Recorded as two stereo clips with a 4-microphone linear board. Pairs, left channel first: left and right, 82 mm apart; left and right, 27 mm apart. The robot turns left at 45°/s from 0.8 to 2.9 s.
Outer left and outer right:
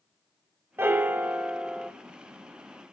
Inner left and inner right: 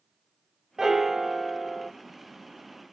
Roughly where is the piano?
Right.